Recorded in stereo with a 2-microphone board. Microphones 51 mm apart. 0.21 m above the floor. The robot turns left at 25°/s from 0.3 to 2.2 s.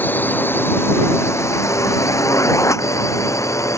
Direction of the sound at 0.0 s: 40° left (ahead or behind).